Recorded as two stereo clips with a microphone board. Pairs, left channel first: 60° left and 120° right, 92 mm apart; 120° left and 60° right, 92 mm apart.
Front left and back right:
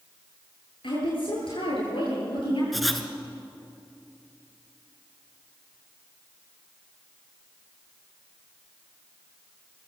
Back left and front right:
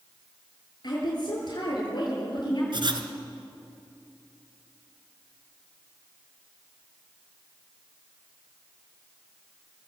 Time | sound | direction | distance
0.8 | a woman speaking | 80° left | 9.5 m
2.7 | writing | 30° right | 1.7 m